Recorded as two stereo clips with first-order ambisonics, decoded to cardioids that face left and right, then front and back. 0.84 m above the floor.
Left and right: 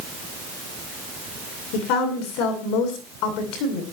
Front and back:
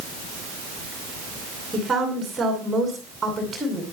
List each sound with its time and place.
1.7 s a woman speaking: 105° left, 9.5 m